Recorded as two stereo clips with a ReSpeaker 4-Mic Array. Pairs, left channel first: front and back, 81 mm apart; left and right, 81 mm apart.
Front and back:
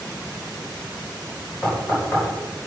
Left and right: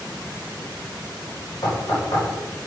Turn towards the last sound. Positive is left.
turn(degrees=65)